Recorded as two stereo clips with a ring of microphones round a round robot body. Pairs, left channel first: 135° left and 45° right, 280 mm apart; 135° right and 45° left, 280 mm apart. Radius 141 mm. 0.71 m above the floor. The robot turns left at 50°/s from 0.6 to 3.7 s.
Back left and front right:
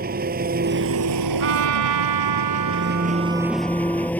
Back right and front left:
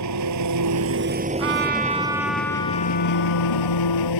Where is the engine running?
15° left; by 4.2 s 140° right.